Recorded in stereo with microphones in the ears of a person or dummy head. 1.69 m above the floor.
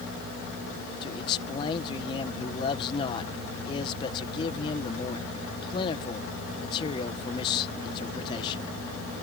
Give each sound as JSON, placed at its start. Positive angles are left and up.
{"t": 1.0, "sound": "a man speaking", "side_deg": 30}